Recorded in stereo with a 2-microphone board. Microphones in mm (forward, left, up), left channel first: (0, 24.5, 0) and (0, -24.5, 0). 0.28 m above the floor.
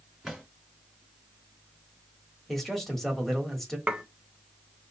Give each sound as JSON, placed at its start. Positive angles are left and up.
{"t": 0.2, "sound": "a drawer", "side_deg": -5, "distance_m": 2.0}
{"t": 2.5, "sound": "a man speaking", "side_deg": 5, "distance_m": 1.2}
{"t": 3.9, "sound": "dishes clattering", "side_deg": -20, "distance_m": 0.6}